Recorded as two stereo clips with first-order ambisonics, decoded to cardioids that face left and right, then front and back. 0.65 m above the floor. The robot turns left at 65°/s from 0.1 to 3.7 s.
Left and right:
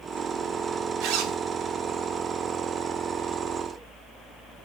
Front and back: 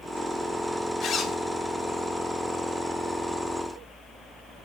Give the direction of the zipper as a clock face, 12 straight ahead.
2 o'clock.